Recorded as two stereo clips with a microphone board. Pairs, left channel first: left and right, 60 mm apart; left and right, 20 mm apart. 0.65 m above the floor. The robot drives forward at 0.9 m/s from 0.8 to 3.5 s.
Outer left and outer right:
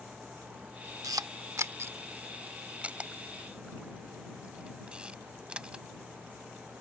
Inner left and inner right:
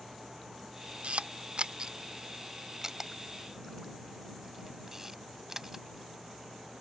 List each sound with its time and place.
1.0 s a camera shutter: 80° right; by 5.8 s 15° right (ahead or behind)